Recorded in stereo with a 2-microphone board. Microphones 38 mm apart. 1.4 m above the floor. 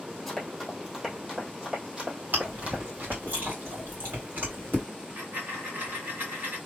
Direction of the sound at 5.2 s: 60° right (ahead or behind).